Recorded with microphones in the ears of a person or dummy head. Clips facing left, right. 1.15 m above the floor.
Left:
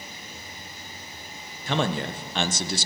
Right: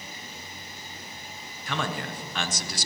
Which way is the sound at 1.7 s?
25° left (ahead or behind).